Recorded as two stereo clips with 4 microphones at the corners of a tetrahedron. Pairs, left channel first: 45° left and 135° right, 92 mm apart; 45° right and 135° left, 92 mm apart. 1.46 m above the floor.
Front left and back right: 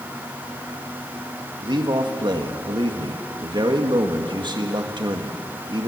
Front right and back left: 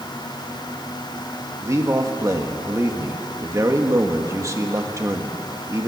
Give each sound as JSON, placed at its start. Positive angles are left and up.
{"t": 1.6, "sound": "a man speaking", "azimuth_deg": -170, "distance_m": 1.8}